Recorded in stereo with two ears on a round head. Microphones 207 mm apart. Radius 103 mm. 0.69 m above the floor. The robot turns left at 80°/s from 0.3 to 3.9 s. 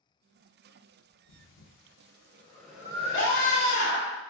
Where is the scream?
110° left, 1.8 m; by 4.2 s 50° left, 1.8 m.